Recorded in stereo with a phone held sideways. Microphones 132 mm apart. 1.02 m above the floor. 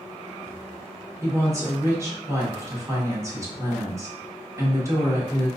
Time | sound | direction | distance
1.2 | a woman speaking | 20° right (ahead or behind) | 1.1 m